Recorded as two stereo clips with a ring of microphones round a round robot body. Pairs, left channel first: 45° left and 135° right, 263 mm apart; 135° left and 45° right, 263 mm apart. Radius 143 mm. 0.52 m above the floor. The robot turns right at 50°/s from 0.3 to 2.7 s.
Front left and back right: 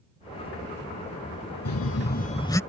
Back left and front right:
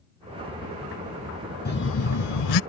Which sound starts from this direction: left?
A phone buzzing, at 1.6 s.